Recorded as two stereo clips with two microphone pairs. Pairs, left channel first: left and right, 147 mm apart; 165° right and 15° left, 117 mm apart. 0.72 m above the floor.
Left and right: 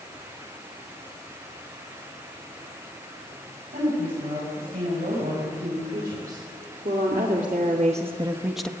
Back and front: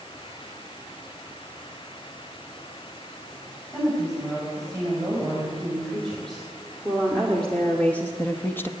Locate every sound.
3.7 s a woman speaking: 75° right, 6.5 m; by 8.7 s 155° left, 0.8 m